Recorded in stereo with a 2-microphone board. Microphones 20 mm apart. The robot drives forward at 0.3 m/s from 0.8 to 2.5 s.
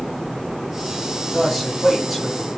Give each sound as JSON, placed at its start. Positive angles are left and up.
{"t": 1.3, "sound": "a man speaking", "side_deg": -5, "distance_m": 2.5}